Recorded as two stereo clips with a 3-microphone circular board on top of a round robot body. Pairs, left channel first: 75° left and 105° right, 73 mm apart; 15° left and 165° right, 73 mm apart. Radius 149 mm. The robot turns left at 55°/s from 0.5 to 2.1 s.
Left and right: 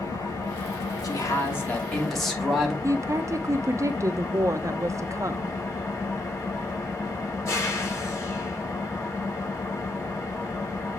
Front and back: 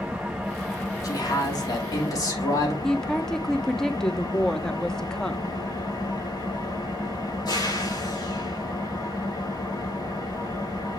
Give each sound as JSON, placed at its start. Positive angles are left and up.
{"t": 0.0, "sound": "an engine running", "azimuth_deg": 115, "distance_m": 3.0}
{"t": 1.0, "sound": "a man speaking", "azimuth_deg": 45, "distance_m": 2.5}
{"t": 2.8, "sound": "a woman speaking", "azimuth_deg": -65, "distance_m": 0.5}